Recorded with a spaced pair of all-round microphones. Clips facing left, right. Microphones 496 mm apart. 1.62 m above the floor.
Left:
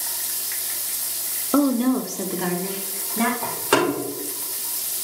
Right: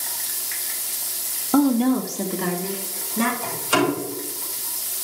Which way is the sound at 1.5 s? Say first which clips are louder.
Right 1 dB; 15° right (ahead or behind).